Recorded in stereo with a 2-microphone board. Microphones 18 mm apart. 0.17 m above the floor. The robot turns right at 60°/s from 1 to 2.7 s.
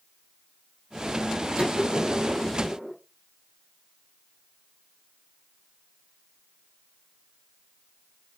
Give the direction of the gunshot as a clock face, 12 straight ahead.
3 o'clock.